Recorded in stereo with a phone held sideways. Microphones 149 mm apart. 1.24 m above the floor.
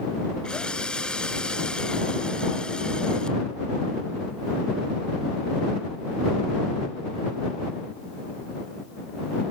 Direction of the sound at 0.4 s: 5° left (ahead or behind).